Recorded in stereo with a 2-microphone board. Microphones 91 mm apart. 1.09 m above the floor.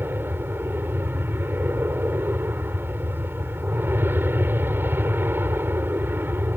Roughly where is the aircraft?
Right.